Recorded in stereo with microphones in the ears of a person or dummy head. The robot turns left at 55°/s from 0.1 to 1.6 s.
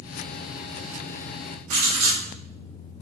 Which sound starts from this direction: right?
Writing, at 1.7 s.